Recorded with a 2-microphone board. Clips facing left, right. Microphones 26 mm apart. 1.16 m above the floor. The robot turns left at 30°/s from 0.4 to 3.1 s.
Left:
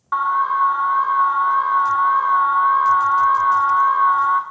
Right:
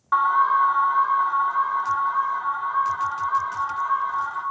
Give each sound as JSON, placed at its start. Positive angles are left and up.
{"t": 0.1, "sound": "an alarm", "azimuth_deg": 180, "distance_m": 0.6}